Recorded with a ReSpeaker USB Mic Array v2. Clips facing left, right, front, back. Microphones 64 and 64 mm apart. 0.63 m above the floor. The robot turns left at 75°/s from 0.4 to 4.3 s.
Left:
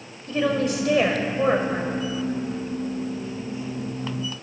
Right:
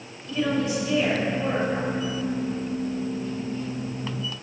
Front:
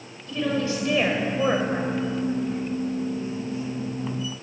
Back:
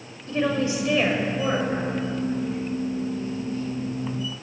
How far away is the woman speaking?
About 2.5 m.